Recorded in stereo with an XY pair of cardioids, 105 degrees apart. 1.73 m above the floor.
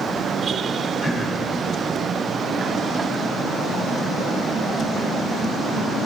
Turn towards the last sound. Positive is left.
turn(degrees=30)